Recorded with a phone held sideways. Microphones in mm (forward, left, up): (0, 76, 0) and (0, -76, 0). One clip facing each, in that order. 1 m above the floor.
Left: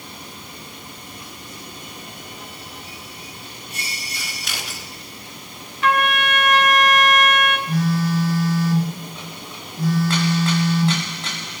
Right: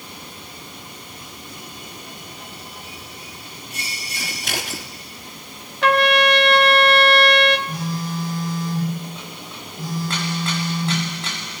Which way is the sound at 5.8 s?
65° right (ahead or behind).